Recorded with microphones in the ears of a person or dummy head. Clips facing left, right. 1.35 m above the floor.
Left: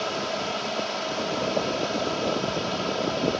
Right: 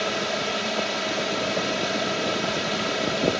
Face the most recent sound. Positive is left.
turn(degrees=-25)  # may be behind; listen again after turning